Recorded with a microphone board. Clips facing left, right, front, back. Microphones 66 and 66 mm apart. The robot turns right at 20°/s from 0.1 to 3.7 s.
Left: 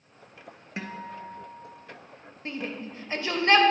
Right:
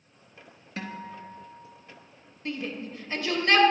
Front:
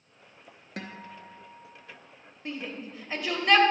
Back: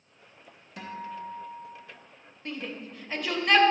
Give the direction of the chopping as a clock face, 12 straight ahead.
No chopping in this recording.